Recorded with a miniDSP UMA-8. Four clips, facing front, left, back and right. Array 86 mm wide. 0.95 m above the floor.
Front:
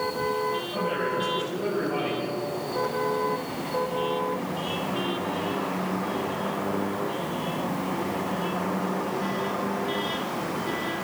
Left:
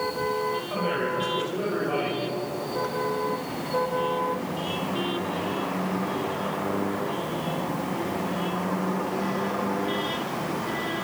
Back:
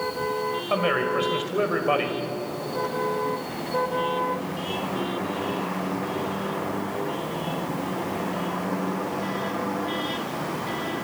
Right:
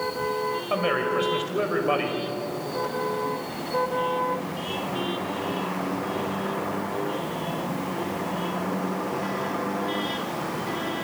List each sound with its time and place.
0.7 s a man speaking: 150° right, 5 m